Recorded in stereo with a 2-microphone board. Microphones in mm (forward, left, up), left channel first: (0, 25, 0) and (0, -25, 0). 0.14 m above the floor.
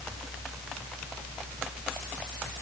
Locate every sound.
Only background noise.